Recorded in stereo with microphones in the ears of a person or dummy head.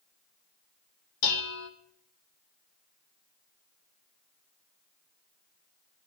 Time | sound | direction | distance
1.2 | dishes clattering | 80° left | 1.6 m